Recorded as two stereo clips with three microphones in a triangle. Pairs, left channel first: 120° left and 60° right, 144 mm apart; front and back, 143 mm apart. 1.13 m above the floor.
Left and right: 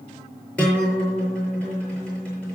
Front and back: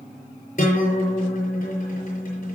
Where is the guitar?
40° left, 7 m.